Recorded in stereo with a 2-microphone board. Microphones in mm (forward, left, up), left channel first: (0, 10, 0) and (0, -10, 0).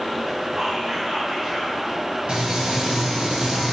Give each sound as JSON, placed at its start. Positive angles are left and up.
{"t": 0.6, "sound": "whispering", "side_deg": -60, "distance_m": 0.9}
{"t": 2.3, "sound": "frying", "side_deg": -70, "distance_m": 1.3}